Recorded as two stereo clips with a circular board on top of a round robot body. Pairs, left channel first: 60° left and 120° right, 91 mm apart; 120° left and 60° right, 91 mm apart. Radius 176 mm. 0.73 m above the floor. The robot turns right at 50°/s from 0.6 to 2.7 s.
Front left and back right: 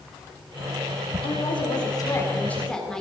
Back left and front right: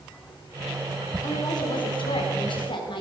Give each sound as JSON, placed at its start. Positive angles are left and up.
{"t": 1.2, "sound": "a woman speaking", "azimuth_deg": 70, "distance_m": 3.0}